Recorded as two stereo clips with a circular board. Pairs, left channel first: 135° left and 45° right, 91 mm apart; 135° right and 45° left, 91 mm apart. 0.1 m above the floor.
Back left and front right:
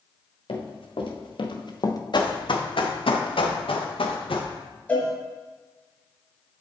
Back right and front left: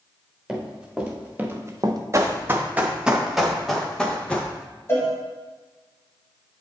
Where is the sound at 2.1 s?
105° left, 1.6 m; by 4.5 s 150° left, 2.5 m.